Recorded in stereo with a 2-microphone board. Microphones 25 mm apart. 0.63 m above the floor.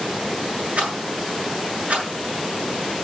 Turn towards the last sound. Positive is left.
turn(degrees=-55)  # may be behind; listen again after turning